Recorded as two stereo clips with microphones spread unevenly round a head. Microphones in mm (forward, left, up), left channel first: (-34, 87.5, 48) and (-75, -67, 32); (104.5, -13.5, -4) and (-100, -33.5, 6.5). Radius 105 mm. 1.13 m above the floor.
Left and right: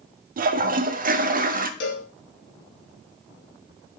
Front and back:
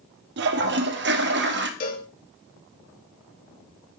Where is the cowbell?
55° left, 2 m.